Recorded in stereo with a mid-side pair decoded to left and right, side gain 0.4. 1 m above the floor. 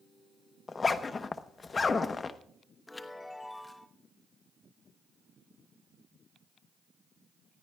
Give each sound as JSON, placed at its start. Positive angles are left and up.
{"t": 0.7, "sound": "a zipper", "azimuth_deg": 40, "distance_m": 0.9}
{"t": 2.9, "sound": "a chime", "azimuth_deg": 20, "distance_m": 1.2}